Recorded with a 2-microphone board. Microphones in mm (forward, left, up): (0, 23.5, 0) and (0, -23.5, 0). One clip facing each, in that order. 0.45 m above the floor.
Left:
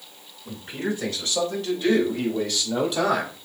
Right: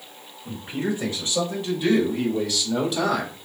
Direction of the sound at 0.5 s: 20° right (ahead or behind).